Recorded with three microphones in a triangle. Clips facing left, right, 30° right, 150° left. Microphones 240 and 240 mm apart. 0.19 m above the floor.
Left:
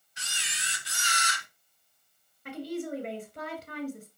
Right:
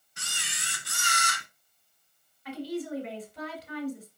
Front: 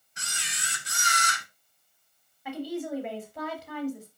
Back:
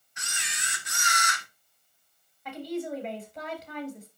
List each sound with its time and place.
0.2 s a camera shutter: 75° right, 1.5 m
2.5 s a woman speaking: 55° left, 3 m